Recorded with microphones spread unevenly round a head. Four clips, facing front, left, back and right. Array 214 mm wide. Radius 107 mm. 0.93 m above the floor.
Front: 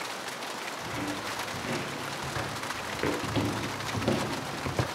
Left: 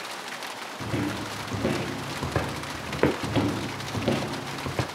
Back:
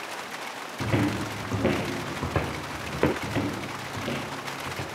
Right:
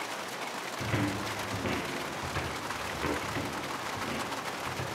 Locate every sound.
0.8 s footsteps: 170° left, 3 m; by 3.1 s 115° left, 4 m
3.2 s footsteps: 100° left, 1.2 m; by 4.9 s 60° left, 2.5 m